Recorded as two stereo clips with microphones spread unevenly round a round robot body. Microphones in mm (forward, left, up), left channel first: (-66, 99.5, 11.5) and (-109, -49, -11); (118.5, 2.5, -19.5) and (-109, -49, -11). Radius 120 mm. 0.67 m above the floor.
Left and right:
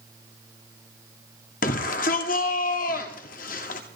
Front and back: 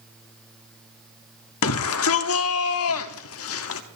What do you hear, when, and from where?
1.6 s a shout: 25° left, 1.2 m